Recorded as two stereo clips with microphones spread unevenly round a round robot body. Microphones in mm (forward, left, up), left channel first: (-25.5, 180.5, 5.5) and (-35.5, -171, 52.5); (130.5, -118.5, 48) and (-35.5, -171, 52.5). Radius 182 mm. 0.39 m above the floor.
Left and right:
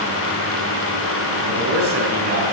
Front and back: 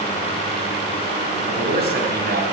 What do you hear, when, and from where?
1.5 s a man speaking: 145° right, 3.5 m